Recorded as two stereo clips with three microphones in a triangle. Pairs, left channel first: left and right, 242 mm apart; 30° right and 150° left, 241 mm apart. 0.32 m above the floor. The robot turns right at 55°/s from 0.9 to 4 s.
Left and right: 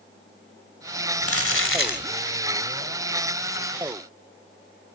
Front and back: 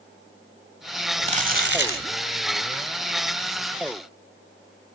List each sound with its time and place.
1.2 s crumpling: 85° left, 1.5 m; by 2.1 s 130° left, 1.5 m